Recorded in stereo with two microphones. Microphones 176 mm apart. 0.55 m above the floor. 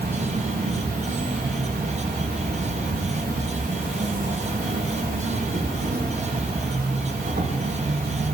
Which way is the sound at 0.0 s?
55° right (ahead or behind).